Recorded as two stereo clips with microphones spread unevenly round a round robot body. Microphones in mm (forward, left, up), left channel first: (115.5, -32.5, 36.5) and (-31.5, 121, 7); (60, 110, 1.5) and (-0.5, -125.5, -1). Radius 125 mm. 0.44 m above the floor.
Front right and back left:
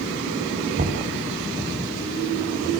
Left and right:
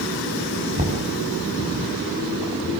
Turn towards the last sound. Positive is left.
turn(degrees=-170)